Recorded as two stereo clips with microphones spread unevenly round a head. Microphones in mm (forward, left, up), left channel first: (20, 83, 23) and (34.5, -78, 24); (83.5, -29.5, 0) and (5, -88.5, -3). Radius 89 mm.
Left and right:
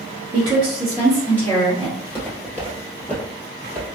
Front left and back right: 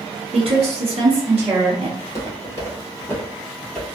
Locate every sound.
0.3 s a woman speaking: 125° right, 0.8 m; by 1.9 s 155° left, 1.1 m
2.0 s footsteps: 25° left, 1.8 m; by 3.9 s 115° left, 1.4 m